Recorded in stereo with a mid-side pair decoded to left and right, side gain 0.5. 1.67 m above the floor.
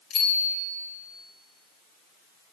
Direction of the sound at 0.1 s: 65° left.